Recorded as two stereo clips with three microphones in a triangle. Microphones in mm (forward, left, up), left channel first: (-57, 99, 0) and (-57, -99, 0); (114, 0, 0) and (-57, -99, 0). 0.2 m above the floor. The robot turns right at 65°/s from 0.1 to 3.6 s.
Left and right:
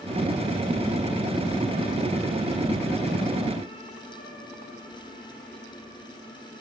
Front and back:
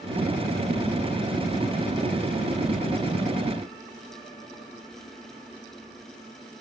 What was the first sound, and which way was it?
Only background noise.